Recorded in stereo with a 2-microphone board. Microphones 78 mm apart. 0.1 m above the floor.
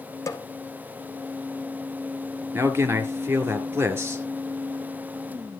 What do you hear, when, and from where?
0.3 s a snare drum: 40° left (ahead or behind), 1.2 m
2.5 s a man speaking: 30° right (ahead or behind), 1.6 m